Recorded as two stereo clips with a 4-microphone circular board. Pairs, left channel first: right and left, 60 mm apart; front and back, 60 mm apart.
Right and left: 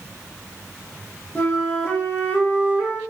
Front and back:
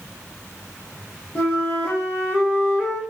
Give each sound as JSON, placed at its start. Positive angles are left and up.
{"t": 1.4, "sound": "a flute", "azimuth_deg": -55, "distance_m": 1.9}